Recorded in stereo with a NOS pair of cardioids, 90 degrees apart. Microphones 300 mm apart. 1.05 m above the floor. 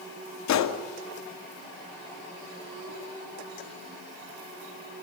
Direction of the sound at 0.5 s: 70° left.